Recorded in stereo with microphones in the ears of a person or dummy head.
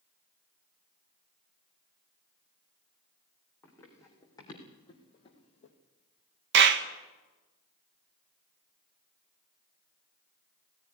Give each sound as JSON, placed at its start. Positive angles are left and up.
{"t": 3.6, "sound": "running footsteps", "side_deg": 15, "distance_m": 4.5}
{"t": 6.5, "sound": "a clap", "side_deg": -65, "distance_m": 1.2}